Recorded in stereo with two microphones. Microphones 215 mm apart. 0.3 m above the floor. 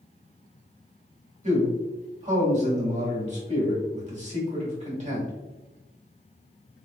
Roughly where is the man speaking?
Right.